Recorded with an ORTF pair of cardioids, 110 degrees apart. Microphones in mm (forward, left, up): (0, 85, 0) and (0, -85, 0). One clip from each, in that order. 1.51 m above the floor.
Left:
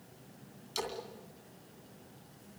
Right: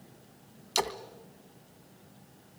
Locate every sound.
0.8 s a splash: 55° right, 2 m